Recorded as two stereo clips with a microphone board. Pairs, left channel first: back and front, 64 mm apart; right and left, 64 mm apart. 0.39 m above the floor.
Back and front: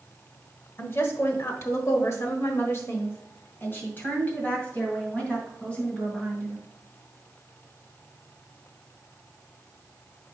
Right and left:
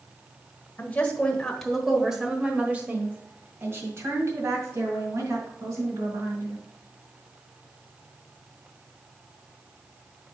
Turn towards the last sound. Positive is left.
turn(degrees=110)